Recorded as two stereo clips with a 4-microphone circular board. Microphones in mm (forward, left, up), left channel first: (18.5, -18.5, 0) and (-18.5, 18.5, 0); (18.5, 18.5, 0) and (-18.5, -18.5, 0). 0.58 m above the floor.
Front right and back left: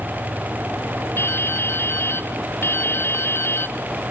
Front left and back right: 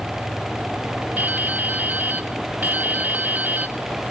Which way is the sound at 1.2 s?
80° right.